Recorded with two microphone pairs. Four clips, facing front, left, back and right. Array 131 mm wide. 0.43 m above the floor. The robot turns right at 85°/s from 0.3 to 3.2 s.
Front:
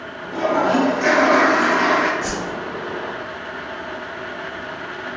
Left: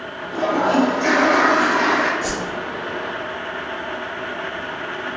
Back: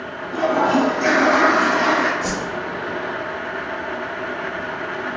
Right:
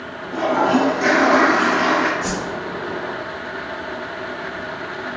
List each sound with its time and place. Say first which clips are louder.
0.3 s a toilet flushing: right 1 dB, even; 130° right, 1.0 m; by 2.1 s 20° left, 1.0 m
2.2 s a whoosh: right 1 dB, back 1 dB; 10° right, 1.4 m; by 2.4 s 5° left, 1.4 m